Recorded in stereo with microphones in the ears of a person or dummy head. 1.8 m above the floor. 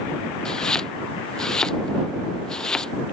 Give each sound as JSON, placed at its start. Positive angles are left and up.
{"t": 0.5, "sound": "chopping", "side_deg": 5}